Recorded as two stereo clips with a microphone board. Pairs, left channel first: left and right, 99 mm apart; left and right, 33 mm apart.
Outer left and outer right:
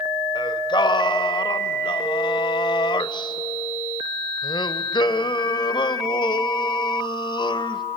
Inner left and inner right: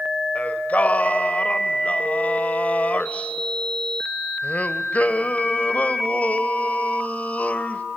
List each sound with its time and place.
0.3 s singing: 50° left (ahead or behind), 0.9 m